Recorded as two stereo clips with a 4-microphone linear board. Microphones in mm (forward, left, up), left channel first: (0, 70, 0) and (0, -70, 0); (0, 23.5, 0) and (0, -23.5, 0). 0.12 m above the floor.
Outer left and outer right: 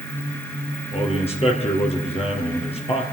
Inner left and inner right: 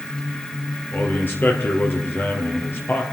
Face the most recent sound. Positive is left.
turn(degrees=45)  # may be behind; listen again after turning